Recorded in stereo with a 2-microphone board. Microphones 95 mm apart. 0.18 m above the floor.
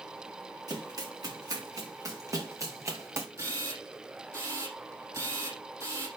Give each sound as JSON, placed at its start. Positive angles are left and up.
{"t": 0.7, "sound": "running footsteps", "side_deg": -45, "distance_m": 6.5}
{"t": 3.4, "sound": "a camera shutter", "side_deg": -35, "distance_m": 5.0}